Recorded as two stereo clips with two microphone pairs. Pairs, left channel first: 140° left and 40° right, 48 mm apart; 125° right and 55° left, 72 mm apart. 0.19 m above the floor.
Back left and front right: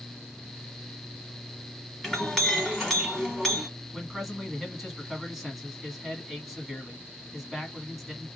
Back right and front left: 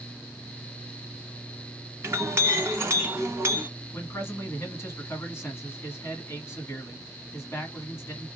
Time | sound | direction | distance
2.0 | a clink | 55° left | 1.3 m
3.9 | a man speaking | 130° right | 1.2 m